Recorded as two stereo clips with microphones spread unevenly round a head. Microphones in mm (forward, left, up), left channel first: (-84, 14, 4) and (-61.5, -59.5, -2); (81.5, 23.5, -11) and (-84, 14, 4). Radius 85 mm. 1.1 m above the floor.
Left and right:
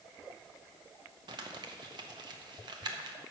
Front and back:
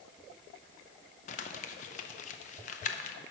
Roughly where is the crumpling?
Ahead right.